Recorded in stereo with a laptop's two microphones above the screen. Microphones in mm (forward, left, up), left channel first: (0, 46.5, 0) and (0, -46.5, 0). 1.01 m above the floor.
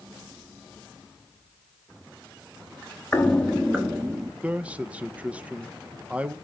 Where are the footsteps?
20° left (ahead or behind), 1.0 m; by 4.3 s 25° right (ahead or behind), 1.2 m.